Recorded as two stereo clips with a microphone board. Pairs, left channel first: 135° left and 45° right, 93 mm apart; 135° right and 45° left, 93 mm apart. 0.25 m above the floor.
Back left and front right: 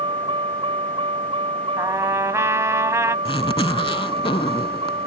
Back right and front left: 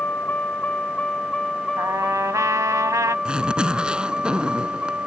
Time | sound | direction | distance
0.0 | a vehicle | 65° right | ?
1.8 | a trumpet | 5° left | ?
3.2 | a zipper | 125° left | ?